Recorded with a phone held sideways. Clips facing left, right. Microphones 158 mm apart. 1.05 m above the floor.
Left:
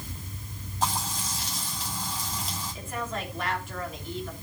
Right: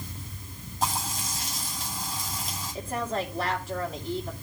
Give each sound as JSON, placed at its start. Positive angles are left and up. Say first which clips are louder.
{"t": 0.8, "sound": "frying", "louder": "even", "side_deg": -10, "distance_m": 9.0}
{"t": 2.8, "sound": "a woman speaking", "louder": "right 5 dB", "side_deg": -35, "distance_m": 3.0}